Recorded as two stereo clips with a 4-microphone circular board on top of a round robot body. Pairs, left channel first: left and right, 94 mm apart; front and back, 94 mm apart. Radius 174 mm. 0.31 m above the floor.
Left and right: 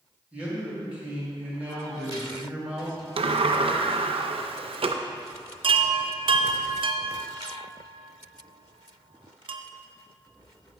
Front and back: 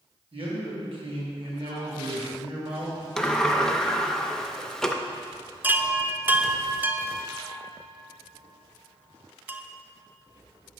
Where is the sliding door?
85° right, 0.5 m.